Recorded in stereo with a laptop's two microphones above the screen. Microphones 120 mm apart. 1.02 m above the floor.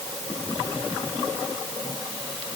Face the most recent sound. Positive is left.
No sound to turn to.